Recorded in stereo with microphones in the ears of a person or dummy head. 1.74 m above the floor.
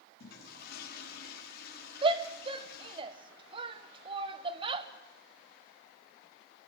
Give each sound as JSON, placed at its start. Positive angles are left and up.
{"t": 0.2, "sound": "a toilet flushing", "side_deg": 55, "distance_m": 5.0}
{"t": 2.0, "sound": "a shout", "side_deg": -30, "distance_m": 1.8}